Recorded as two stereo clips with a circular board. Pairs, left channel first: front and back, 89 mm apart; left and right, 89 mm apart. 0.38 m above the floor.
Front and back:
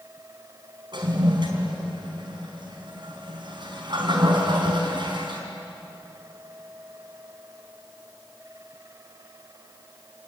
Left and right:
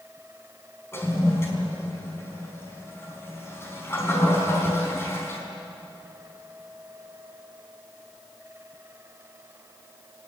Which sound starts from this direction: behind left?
A toilet flushing, at 0.9 s.